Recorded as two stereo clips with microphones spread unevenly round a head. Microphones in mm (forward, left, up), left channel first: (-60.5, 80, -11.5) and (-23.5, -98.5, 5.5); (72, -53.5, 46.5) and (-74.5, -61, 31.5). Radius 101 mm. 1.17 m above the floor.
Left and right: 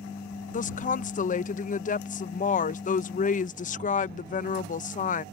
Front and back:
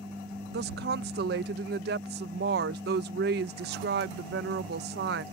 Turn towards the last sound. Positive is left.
turn(degrees=150)